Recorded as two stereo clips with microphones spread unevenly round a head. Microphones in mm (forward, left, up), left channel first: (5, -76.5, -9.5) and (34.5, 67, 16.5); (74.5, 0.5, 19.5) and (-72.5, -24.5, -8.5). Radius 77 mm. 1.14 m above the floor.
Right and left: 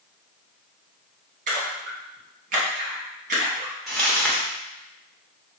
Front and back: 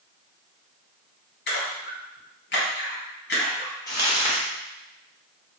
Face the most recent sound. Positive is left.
turn(degrees=5)